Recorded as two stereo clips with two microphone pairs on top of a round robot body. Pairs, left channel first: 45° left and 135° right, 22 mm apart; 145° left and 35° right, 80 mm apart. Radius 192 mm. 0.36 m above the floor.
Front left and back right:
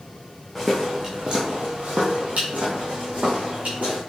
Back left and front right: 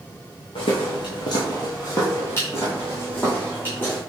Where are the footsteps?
135° left, 0.6 m; by 4.0 s 150° right, 2 m.